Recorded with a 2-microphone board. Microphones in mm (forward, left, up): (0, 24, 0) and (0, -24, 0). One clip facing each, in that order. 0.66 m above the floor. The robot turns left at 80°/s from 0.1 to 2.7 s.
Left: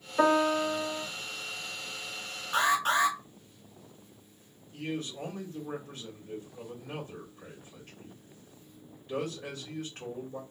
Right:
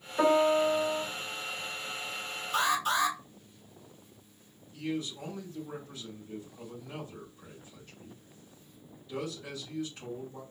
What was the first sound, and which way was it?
A piano, 10° left.